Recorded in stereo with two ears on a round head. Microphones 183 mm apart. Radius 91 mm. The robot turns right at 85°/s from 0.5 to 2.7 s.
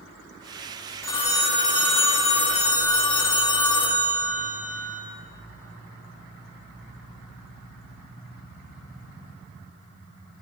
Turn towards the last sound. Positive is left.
turn(degrees=155)